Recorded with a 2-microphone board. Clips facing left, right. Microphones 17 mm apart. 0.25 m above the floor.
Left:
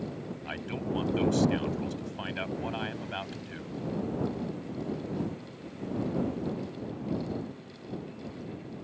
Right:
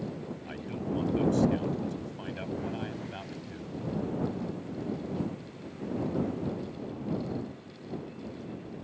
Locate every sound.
0.4 s a man speaking: 30° left (ahead or behind)